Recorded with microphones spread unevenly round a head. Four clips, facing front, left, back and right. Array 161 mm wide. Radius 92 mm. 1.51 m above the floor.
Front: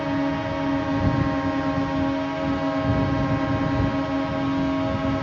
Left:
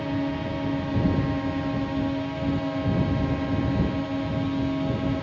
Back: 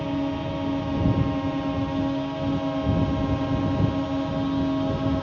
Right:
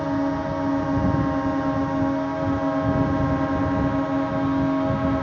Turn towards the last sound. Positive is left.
turn(degrees=-70)